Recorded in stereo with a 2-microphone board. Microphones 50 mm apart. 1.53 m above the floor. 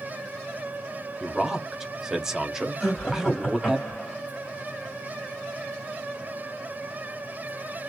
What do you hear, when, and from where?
1.2 s a man speaking: 10° right (ahead or behind), 1.0 m
2.8 s laughter: 10° right (ahead or behind), 2.0 m